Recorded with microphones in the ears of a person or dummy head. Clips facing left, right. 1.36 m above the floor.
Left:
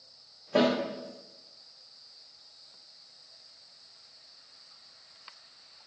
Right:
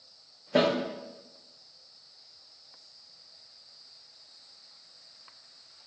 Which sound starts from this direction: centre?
A snare drum, at 0.6 s.